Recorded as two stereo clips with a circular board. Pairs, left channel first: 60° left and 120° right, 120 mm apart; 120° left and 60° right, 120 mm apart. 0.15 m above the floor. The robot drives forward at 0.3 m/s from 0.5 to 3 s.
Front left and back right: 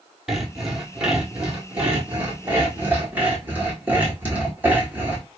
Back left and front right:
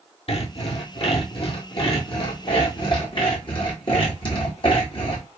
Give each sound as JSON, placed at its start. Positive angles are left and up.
{"t": 0.3, "sound": "sawing", "azimuth_deg": 155, "distance_m": 1.0}